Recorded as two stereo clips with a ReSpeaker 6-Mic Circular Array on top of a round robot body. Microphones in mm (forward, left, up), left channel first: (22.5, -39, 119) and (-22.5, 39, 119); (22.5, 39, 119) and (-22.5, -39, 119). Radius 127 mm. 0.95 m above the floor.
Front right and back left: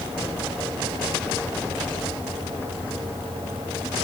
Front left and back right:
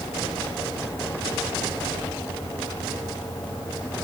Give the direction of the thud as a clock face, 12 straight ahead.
No thud in this recording.